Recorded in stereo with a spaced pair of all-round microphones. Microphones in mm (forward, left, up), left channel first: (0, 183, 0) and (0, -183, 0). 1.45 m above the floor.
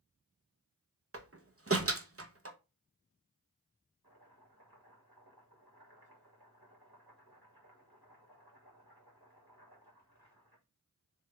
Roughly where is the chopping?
Right.